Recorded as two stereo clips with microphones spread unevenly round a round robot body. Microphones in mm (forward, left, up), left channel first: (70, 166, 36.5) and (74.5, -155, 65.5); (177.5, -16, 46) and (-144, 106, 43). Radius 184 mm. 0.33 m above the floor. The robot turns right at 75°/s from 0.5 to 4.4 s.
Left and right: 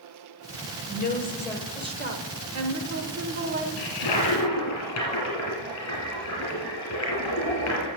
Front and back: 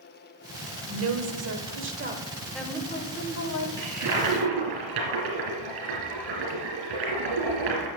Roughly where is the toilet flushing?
Left.